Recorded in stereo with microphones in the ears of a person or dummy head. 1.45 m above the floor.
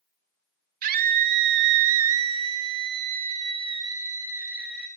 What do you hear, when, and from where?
0.8 s a scream: 50° right (ahead or behind), 1.5 m; by 4.9 s 5° right (ahead or behind), 1.8 m